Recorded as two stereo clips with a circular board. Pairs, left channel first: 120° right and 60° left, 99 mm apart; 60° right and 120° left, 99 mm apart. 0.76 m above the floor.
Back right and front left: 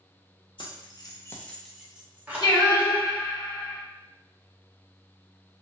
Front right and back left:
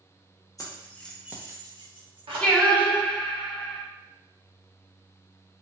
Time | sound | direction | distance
0.6 | keys jangling | 105° right | 0.7 m
2.4 | singing | 130° right | 0.6 m